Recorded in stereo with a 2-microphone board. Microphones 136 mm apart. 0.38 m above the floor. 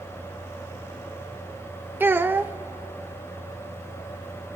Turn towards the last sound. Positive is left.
turn(degrees=-15)  # may be behind; listen again after turning